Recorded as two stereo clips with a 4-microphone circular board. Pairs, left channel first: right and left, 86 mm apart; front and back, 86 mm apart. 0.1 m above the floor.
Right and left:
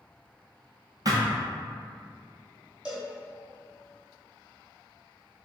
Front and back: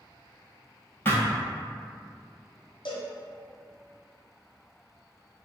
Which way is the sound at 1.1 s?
60° left.